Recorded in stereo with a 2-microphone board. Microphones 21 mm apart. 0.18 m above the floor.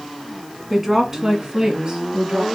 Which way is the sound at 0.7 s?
10° right (ahead or behind).